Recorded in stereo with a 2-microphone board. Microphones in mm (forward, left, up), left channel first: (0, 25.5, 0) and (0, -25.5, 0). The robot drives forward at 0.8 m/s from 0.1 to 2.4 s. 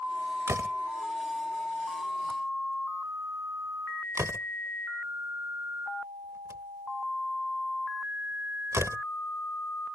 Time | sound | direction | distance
0.5 | a door slam | 60° right (ahead or behind) | ?